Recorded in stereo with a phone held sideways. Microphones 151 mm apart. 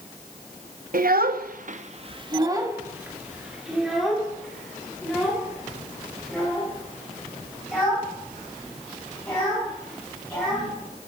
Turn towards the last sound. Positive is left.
turn(degrees=10)  # may be behind; listen again after turning